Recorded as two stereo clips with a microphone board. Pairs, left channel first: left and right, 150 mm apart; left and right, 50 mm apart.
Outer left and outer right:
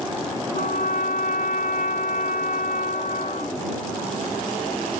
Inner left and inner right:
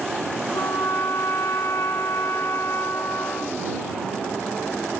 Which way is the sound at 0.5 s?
70° left (ahead or behind).